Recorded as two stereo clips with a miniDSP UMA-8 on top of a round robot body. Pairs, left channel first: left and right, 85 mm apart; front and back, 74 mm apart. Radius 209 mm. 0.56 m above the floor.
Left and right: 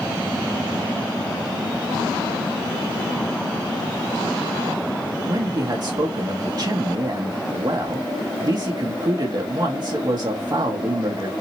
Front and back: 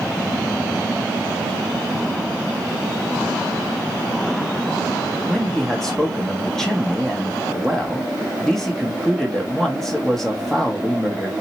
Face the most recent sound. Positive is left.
turn(degrees=-80)